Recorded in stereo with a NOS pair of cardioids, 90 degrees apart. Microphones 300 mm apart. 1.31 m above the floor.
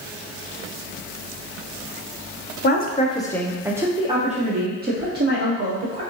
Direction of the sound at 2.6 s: 35° left.